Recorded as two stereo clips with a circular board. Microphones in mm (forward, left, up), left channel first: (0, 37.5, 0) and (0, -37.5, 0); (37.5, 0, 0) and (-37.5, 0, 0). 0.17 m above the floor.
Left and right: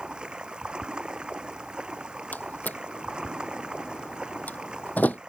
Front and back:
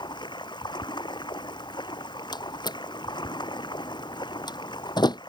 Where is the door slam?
20° left.